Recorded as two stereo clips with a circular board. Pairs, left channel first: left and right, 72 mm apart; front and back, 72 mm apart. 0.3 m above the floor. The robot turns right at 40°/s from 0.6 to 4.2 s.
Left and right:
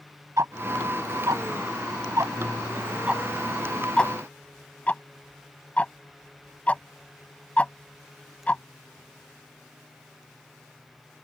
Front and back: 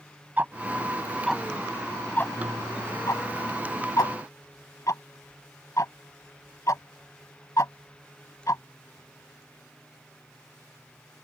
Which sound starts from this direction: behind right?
Ticking, at 0.4 s.